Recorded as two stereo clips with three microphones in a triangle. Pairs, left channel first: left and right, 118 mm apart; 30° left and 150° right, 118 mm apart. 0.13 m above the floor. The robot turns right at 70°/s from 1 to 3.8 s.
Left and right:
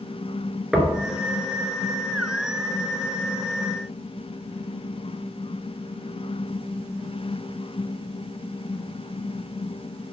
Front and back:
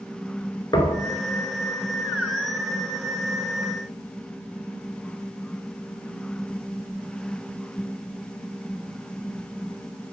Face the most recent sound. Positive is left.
turn(degrees=-170)